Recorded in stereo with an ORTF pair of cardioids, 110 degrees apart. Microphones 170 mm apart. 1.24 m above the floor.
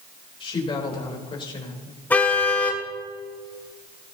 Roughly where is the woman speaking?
Ahead left.